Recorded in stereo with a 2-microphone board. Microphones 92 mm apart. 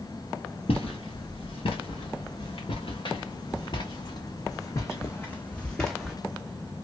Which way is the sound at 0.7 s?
85° left.